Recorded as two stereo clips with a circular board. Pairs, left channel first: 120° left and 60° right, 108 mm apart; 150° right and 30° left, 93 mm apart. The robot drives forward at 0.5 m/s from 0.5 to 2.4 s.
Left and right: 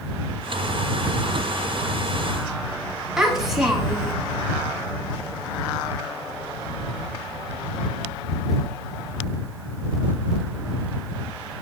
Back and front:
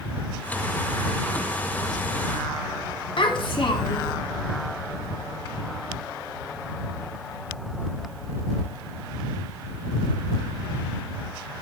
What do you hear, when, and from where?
3.2 s a child speaking: 145° right, 0.8 m